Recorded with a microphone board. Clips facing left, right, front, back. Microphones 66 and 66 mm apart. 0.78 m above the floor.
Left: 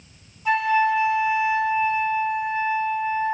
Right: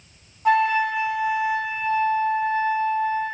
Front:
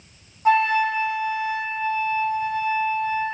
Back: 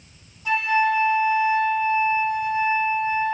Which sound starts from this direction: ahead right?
A flute, at 0.5 s.